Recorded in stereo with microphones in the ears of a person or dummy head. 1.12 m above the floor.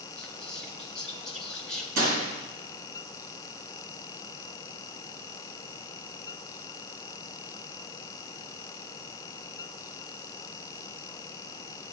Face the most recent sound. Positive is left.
turn(degrees=-50)  # may be behind; listen again after turning